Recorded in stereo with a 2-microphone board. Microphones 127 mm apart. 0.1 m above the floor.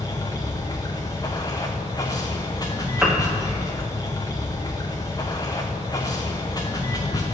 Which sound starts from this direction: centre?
A piano, at 3.0 s.